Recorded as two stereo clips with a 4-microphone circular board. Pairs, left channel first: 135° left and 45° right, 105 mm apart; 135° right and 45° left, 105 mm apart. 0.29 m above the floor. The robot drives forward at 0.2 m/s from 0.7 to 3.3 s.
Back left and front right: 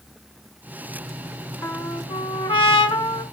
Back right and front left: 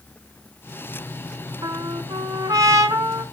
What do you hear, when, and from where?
1.6 s a trumpet: 85° left, 1.0 m; by 3.2 s 105° left, 1.0 m